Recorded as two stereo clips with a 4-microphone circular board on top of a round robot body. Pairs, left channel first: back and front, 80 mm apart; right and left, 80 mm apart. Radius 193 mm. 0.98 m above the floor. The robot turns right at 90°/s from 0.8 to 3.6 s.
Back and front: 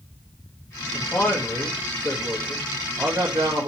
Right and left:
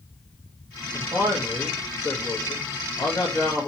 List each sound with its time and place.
0.9 s a man speaking: 110° left, 1.3 m; by 3.7 s 10° right, 1.3 m